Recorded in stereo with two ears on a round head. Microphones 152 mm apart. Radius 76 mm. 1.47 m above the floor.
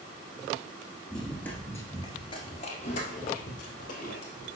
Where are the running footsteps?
Centre (ahead or behind), 1.8 m; by 4.6 s 50° left (ahead or behind), 3 m.